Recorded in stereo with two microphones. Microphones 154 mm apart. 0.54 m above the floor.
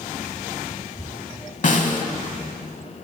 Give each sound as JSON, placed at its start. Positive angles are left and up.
{"t": 1.6, "sound": "a snare drum", "side_deg": 55, "distance_m": 0.7}